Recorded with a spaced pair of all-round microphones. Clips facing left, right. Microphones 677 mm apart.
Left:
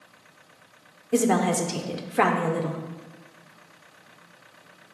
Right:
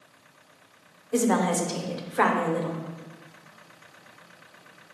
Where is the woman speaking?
55° left (ahead or behind), 0.8 m.